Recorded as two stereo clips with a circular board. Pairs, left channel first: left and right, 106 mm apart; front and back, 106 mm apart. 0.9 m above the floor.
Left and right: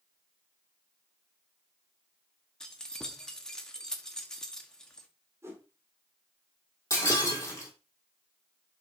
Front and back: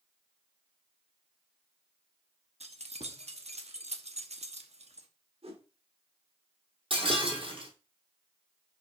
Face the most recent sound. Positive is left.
turn(degrees=150)